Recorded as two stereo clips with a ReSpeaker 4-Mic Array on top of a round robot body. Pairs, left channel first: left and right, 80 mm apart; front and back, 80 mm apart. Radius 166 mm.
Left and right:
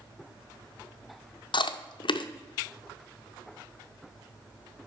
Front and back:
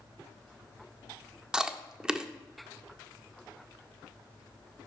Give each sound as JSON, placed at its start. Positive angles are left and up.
{"t": 1.5, "sound": "chewing", "azimuth_deg": 100, "distance_m": 0.6}